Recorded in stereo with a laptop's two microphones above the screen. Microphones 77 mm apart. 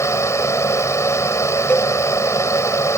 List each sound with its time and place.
0.0 s a fan: 40° left (ahead or behind)
1.7 s a cowbell: 20° left (ahead or behind)